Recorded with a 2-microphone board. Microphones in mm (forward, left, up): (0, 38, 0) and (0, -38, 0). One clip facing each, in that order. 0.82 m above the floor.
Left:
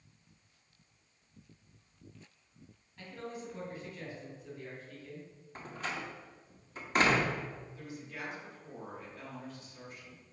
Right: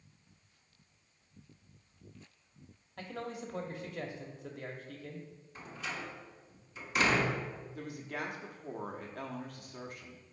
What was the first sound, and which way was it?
A man speaking, 70° right (ahead or behind).